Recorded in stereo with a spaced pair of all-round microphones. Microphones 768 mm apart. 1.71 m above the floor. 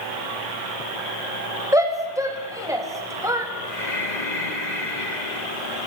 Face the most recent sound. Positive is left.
turn(degrees=65)  # may be behind; listen again after turning